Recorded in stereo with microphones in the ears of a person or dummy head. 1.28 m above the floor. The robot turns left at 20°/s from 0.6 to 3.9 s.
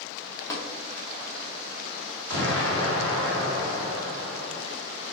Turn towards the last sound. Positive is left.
turn(degrees=-115)